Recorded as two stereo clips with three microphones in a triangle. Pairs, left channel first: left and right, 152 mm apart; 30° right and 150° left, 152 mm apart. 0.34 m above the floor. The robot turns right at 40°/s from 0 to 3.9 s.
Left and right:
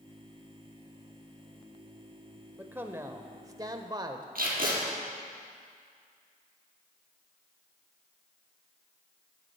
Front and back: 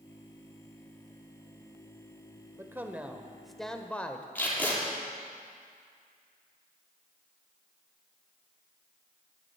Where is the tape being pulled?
110° right, 3.5 m.